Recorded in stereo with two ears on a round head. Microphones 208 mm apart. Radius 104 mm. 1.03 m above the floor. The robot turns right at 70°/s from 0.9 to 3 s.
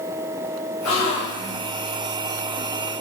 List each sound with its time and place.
0.8 s a gasp: 110° left, 1.2 m; by 1.6 s 160° left, 1.2 m